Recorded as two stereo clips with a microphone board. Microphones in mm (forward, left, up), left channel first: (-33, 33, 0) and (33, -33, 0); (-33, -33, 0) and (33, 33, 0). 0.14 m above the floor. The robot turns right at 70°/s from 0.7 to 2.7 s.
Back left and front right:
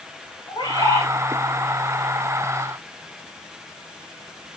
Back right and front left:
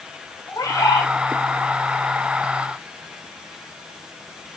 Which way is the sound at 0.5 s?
170° left.